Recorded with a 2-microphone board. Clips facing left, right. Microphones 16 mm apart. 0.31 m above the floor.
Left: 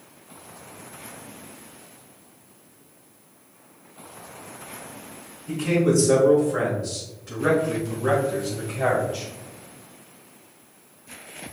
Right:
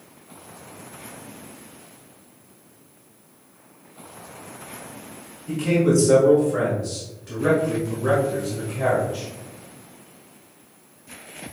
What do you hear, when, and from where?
5.5 s a man speaking: 10° right (ahead or behind), 2.0 m; by 9.2 s 15° left (ahead or behind), 1.5 m